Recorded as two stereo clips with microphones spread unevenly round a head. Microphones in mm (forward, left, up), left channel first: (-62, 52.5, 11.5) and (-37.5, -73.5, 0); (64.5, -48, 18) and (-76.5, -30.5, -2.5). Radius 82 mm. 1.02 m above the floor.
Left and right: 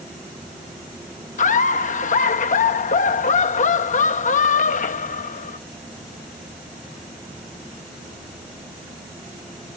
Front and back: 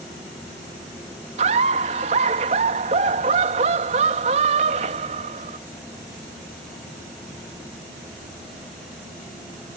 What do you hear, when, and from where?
1.4 s laughter: 125° left